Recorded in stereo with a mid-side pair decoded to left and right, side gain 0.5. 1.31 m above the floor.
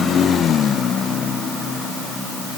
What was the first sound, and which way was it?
Only background noise.